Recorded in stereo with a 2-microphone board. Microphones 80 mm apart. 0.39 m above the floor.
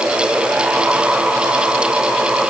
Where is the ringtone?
No ringtone in this recording.